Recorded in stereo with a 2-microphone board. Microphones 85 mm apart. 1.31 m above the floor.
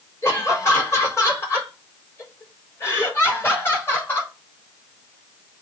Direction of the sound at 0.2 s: 35° left (ahead or behind).